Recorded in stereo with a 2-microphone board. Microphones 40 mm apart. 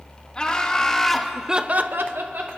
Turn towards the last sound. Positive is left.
turn(degrees=-65)  # may be behind; listen again after turning